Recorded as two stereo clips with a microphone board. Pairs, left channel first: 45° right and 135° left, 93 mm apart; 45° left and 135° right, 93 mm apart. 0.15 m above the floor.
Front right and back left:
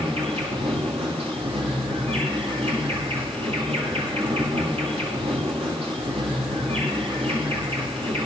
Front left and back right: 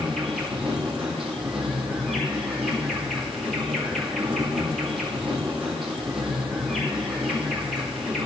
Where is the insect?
135° left, 6 m.